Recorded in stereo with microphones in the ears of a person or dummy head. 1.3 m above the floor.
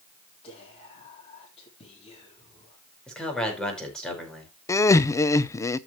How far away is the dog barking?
No dog barking in this recording.